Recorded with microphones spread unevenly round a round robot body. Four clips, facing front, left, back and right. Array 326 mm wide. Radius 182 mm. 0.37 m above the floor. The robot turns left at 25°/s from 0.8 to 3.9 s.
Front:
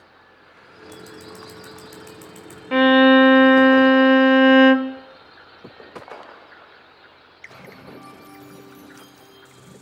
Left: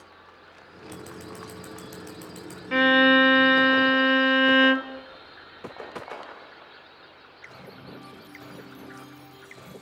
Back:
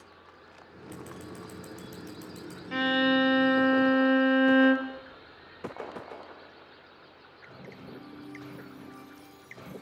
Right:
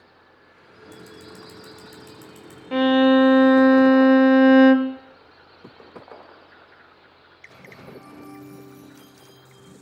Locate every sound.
0.9 s scissors: 90° left, 6.5 m; by 2.6 s 50° left, 6.5 m
2.7 s a violin: 5° right, 0.8 m; by 5.0 s 35° right, 0.8 m